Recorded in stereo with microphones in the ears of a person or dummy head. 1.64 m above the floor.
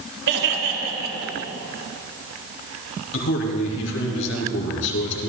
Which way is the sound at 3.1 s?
70° left (ahead or behind).